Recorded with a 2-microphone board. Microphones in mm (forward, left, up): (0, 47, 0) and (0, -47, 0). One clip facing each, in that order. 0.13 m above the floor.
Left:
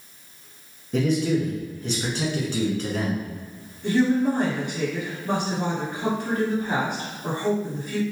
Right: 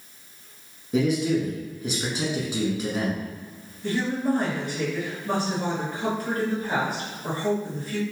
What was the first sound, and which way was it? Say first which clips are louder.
A man speaking: even; 10° right (ahead or behind).